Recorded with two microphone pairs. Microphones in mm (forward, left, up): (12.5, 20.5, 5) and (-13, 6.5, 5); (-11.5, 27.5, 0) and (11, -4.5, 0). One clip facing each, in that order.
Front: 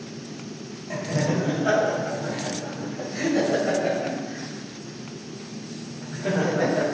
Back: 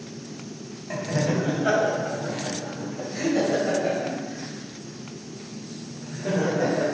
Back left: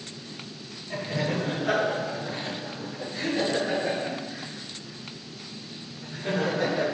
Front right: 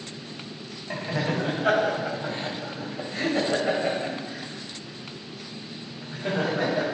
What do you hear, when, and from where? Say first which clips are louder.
0.9 s laughter: even, front right 1 dB; 85° right, 3 m; by 6.8 s 5° left, 3 m